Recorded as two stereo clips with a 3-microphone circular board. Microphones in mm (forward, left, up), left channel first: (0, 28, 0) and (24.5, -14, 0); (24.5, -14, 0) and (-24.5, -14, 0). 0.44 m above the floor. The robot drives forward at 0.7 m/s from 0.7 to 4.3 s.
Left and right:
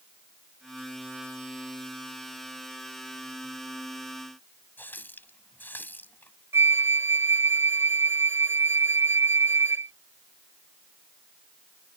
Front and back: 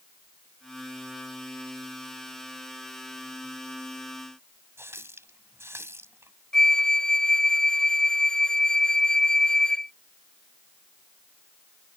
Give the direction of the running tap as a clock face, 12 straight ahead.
7 o'clock.